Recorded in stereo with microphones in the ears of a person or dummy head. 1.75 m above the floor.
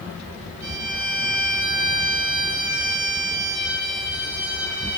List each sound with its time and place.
0.6 s a violin: 75° right (ahead or behind), 7 m